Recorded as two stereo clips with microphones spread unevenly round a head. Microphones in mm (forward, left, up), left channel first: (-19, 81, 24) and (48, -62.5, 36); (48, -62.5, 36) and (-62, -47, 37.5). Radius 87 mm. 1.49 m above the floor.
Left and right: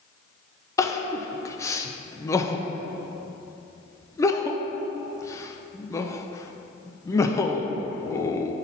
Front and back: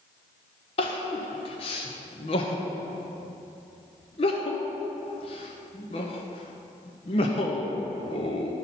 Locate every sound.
0.8 s crying: 45° left, 0.6 m